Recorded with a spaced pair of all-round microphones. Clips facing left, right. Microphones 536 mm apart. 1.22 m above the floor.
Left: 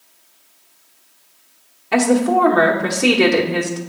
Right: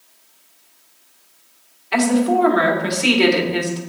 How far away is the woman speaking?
About 1.3 m.